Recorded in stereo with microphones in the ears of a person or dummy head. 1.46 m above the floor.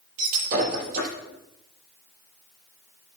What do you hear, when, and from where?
0.2 s breaking glass: 50° right (ahead or behind), 7.5 m